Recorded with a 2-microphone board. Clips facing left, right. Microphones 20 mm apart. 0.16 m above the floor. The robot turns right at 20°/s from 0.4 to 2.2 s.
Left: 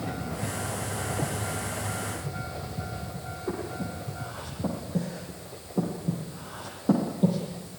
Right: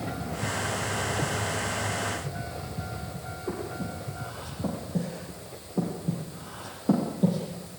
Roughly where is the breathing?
Centre.